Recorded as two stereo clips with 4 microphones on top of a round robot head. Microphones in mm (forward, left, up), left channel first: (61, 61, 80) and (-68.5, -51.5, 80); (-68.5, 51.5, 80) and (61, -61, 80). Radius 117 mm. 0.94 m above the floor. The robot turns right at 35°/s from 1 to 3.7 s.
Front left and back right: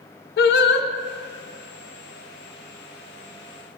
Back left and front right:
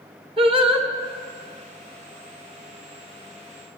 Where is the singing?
20° left, 0.8 m.